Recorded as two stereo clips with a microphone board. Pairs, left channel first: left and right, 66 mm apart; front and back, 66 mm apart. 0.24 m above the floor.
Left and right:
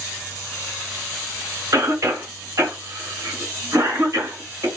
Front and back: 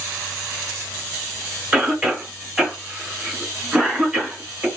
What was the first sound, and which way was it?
A cough, 115° right.